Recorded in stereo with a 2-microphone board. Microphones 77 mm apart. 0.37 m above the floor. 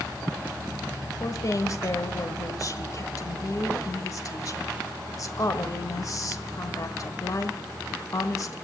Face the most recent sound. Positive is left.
turn(degrees=50)  # may be behind; listen again after turning